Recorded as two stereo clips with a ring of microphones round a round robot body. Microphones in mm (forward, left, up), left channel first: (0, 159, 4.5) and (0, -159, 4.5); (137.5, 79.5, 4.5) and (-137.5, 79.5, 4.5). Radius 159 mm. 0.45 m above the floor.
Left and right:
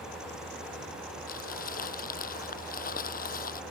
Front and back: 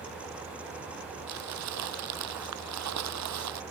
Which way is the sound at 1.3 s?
155° left.